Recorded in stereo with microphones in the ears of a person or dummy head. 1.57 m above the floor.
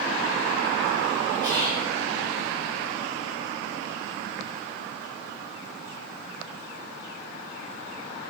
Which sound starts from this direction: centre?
Whispering, at 1.4 s.